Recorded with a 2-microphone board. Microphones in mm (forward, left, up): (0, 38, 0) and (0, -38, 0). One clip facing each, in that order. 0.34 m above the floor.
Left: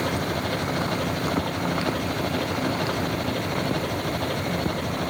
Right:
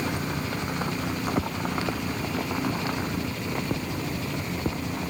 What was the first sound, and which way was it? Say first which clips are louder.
An engine running: left 3 dB; 55° left (ahead or behind).